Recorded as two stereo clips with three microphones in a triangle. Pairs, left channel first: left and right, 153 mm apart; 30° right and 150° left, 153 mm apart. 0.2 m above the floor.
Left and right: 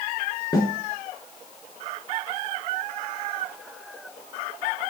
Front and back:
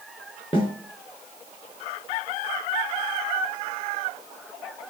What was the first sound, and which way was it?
A snare drum, 25° left.